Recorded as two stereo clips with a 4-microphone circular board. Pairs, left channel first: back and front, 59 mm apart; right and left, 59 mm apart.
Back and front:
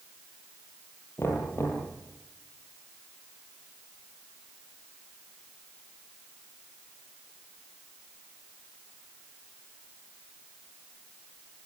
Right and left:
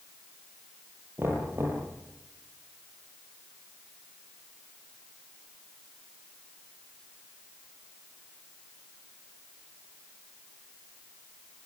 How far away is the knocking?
About 7.5 m.